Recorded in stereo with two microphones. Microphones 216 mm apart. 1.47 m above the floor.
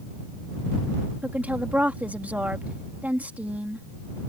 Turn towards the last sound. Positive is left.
turn(degrees=-5)  # may be behind; listen again after turning